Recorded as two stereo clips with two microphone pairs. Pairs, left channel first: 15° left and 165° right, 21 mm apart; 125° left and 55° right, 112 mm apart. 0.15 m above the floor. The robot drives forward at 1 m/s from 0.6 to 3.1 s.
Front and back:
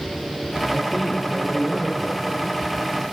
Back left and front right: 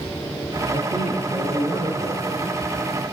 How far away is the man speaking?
About 1.9 m.